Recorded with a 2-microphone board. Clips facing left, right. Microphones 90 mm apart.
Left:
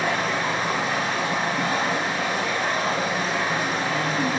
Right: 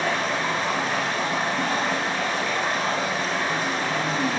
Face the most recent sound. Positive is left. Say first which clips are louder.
# left 1 dB
turn(degrees=15)  # may be behind; listen again after turning